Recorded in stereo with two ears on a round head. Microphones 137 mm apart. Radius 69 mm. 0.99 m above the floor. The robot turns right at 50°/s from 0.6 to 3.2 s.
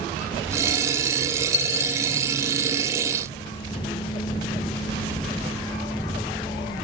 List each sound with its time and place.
1.5 s a dropped coin: 50° left (ahead or behind), 0.5 m; by 2.0 s 45° left (ahead or behind), 0.5 m